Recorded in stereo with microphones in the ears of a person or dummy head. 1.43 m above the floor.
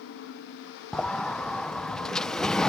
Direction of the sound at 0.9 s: Centre (ahead or behind).